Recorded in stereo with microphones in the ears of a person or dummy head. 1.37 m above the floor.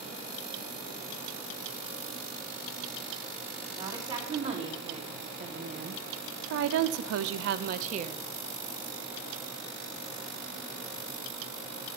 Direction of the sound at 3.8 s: 35° right (ahead or behind).